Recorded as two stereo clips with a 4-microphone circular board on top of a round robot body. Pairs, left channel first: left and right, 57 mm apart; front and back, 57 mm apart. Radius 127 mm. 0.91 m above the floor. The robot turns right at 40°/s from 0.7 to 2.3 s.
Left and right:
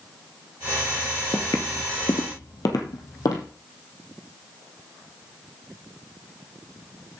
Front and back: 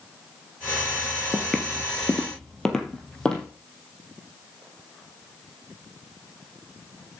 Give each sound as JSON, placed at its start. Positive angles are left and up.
{"t": 1.3, "sound": "footsteps", "azimuth_deg": 110, "distance_m": 0.9}